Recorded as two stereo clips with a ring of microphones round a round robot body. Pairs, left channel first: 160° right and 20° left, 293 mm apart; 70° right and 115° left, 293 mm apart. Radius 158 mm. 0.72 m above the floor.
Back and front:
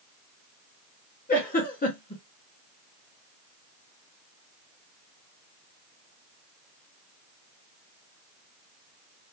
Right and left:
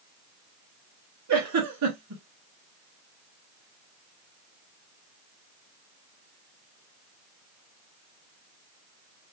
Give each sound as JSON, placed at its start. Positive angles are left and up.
{"t": 1.3, "sound": "a giggle", "azimuth_deg": 140, "distance_m": 2.0}